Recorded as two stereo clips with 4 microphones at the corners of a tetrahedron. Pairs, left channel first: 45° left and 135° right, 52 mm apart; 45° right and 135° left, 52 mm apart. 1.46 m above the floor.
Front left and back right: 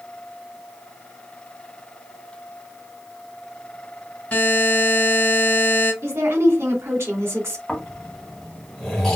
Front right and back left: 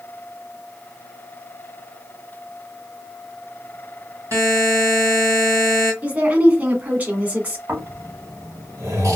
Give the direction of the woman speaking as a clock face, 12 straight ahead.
6 o'clock.